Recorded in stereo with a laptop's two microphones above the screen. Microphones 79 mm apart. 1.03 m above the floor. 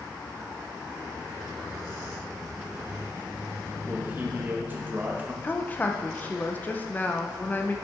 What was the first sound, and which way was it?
A man speaking, 25° right (ahead or behind).